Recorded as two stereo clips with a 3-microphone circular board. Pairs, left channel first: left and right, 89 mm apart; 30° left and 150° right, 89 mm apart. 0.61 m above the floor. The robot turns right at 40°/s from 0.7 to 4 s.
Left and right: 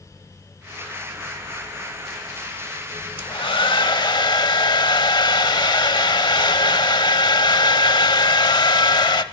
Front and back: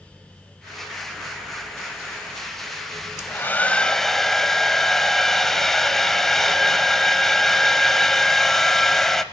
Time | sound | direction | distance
3.2 | a hair dryer | 85° left | 0.7 m